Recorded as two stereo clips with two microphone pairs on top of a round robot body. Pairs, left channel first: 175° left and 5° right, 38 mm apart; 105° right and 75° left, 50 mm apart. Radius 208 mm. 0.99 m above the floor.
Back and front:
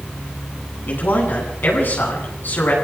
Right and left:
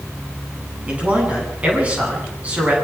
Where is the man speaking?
140° left, 9 m.